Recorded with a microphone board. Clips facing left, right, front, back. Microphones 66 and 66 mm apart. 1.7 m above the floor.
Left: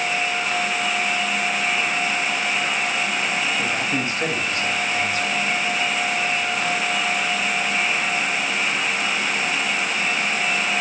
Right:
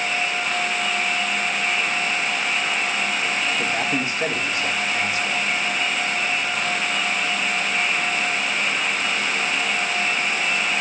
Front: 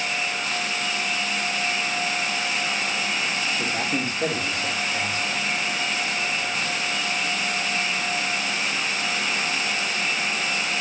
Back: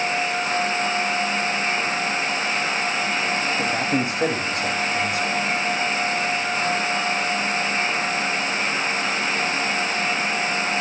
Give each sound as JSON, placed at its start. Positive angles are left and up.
{"t": 3.6, "sound": "a man speaking", "azimuth_deg": -170, "distance_m": 9.0}